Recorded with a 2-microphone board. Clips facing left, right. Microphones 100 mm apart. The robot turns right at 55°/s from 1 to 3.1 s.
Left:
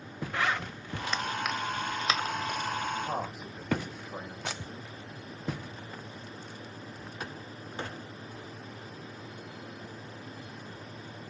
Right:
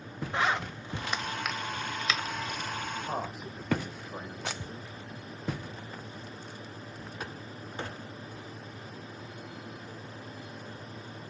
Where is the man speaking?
20° left (ahead or behind), 4.5 m; by 4.9 s 10° left (ahead or behind), 4.5 m.